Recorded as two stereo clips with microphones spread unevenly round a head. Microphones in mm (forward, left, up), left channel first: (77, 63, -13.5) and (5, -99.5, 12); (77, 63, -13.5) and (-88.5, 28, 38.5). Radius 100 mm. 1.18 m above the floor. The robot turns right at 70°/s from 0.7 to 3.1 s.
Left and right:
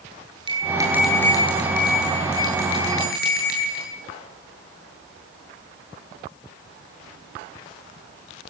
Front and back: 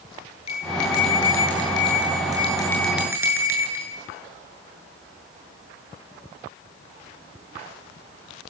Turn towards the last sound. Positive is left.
turn(degrees=115)